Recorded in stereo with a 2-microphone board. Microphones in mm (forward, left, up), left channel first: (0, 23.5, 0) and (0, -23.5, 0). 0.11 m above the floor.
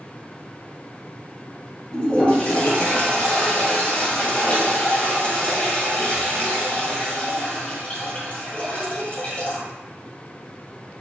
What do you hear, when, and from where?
1.9 s a toilet flushing: 30° left (ahead or behind), 2 m